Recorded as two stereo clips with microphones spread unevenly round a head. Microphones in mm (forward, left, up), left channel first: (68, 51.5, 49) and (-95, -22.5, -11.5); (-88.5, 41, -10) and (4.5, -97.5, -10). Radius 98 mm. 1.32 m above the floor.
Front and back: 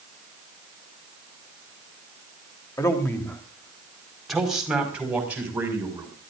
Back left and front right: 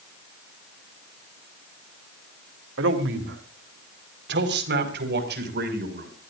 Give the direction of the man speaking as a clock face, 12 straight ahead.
2 o'clock.